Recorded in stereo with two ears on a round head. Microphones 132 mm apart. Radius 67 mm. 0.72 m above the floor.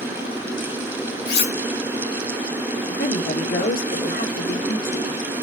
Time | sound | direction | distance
1.3 | cutlery clinking | 85° left | 3 m
2.9 | a woman speaking | 60° left (ahead or behind) | 2 m